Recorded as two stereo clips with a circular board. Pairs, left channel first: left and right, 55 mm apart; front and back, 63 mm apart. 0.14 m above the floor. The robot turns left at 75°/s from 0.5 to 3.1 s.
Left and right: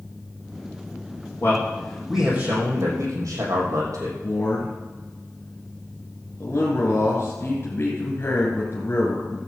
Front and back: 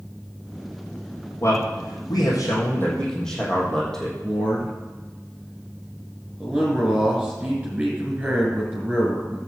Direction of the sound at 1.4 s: 45° left.